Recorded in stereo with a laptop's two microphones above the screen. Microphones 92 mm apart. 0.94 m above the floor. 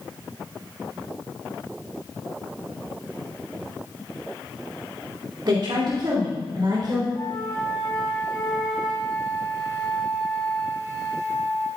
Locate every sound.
5.5 s a woman speaking: 60° right (ahead or behind), 2.5 m; by 7.0 s 55° right (ahead or behind), 3.5 m
7.2 s a flute: 40° left (ahead or behind), 1.9 m